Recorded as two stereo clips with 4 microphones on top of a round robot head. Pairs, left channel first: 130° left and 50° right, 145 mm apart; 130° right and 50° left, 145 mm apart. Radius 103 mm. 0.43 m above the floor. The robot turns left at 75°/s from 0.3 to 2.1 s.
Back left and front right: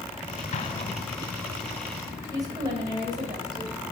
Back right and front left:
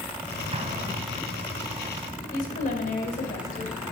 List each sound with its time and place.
0.5 s an explosion: 100° left, 1.3 m; by 1.3 s 40° left, 1.3 m
2.3 s a woman speaking: 115° right, 2.5 m